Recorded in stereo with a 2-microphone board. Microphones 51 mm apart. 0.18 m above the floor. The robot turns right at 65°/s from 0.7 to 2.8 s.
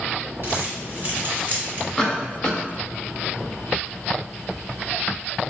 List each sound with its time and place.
0.4 s crumpling: 45° right (ahead or behind), 2 m; by 1.9 s 20° right (ahead or behind), 2 m
2.0 s a cough: 15° left (ahead or behind), 1.4 m; by 2.6 s 25° left (ahead or behind), 1.4 m